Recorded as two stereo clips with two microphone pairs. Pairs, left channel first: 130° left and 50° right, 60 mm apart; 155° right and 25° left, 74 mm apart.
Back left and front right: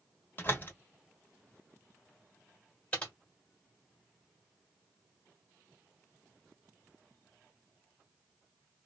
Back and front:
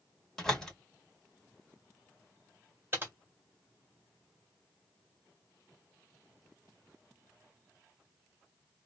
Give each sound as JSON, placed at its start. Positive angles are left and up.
{"t": 0.4, "sound": "a door slam", "azimuth_deg": 125, "distance_m": 1.1}
{"t": 2.9, "sound": "typing on a keyboard", "azimuth_deg": 70, "distance_m": 1.6}